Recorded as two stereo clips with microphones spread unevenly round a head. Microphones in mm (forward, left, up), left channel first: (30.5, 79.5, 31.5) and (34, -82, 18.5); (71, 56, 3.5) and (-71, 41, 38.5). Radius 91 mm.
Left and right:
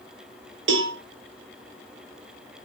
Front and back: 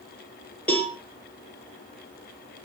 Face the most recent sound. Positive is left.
turn(degrees=-80)